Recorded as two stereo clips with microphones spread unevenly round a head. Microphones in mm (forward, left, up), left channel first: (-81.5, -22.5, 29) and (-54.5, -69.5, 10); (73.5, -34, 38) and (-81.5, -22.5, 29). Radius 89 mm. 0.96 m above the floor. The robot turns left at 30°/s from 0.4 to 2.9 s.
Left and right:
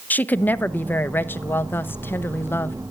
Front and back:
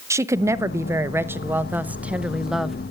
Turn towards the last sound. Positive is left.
turn(degrees=95)